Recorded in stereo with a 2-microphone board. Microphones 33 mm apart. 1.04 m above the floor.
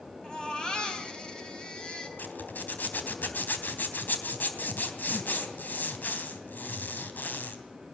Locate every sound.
0.2 s a baby crying: 25° left (ahead or behind), 5 m
2.2 s a zipper: 75° left (ahead or behind), 3.5 m